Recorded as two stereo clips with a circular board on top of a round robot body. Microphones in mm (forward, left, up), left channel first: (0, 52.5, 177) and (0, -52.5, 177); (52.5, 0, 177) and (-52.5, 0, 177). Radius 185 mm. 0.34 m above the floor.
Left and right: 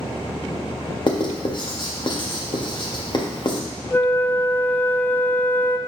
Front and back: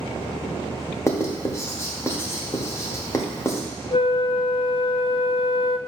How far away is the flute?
About 0.6 m.